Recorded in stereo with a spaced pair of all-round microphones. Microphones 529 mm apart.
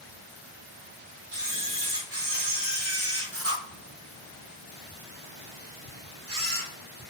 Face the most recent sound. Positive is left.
turn(degrees=-25)  # may be behind; listen again after turning